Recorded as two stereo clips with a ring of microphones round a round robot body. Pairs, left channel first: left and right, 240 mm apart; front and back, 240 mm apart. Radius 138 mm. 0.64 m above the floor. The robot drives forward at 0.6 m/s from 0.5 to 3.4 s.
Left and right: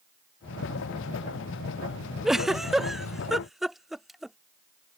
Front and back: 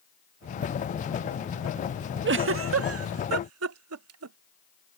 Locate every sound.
2.2 s a giggle: straight behind